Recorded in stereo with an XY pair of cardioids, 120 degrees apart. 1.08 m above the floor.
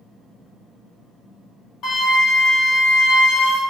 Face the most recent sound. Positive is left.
turn(degrees=65)